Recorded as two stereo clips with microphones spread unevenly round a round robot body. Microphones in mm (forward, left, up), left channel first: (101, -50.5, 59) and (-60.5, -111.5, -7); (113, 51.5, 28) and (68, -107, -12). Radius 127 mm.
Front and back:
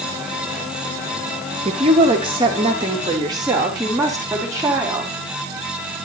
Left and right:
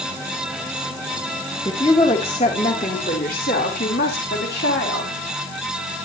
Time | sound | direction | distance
1.6 | a woman speaking | 150° left | 2 m